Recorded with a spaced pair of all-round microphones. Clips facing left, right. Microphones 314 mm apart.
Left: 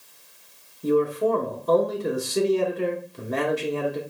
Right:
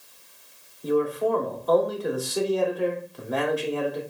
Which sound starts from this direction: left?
A man speaking, at 0.8 s.